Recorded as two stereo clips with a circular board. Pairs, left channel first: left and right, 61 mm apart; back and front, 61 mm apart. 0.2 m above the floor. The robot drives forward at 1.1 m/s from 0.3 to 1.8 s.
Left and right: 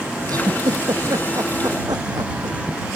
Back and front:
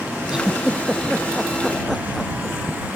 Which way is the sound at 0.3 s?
80° right.